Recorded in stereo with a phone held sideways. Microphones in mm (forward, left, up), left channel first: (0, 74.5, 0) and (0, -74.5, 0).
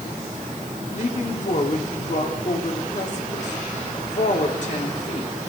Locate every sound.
0.9 s a woman speaking: 55° left (ahead or behind), 2.5 m